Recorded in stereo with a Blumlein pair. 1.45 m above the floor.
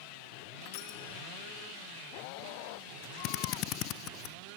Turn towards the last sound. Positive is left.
turn(degrees=40)